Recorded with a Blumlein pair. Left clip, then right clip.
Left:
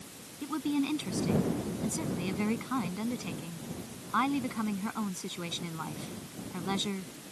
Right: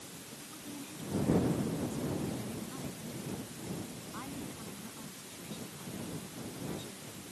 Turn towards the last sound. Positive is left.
turn(degrees=40)